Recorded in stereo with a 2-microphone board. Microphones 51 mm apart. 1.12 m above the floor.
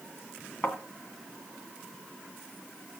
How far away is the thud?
About 2 m.